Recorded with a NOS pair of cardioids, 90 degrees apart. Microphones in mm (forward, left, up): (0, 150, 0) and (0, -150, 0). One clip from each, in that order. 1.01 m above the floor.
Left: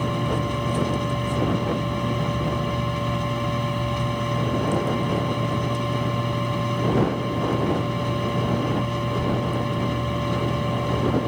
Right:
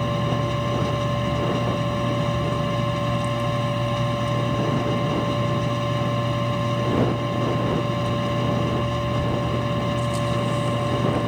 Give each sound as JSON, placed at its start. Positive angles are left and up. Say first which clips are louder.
{"t": 0.0, "sound": "a machine running", "louder": "right 1 dB", "azimuth_deg": -25}